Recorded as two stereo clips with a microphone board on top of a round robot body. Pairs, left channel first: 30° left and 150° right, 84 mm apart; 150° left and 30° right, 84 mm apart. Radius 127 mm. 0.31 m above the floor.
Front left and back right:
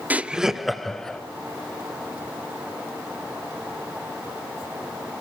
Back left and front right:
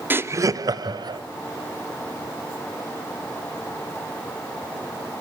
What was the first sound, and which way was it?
Laughter, 85° right.